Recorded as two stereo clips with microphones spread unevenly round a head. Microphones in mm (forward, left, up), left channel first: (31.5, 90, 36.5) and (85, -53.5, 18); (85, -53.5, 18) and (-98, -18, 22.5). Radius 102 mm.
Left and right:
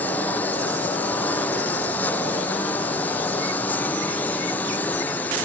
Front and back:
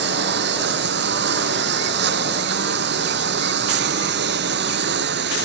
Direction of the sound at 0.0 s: 170° right.